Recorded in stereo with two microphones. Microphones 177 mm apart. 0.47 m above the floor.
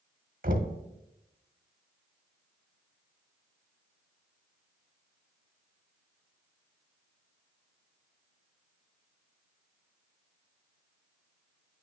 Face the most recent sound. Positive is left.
turn(degrees=-50)  # may be behind; listen again after turning